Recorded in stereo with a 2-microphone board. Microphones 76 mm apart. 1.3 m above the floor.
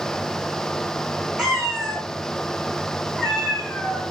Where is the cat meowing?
5° right (ahead or behind), 1.1 m; by 4.0 s 10° left (ahead or behind), 1.7 m.